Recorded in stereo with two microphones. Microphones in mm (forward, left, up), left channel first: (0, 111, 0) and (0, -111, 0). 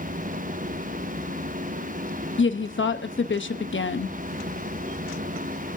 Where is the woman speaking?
60° left (ahead or behind), 0.9 m.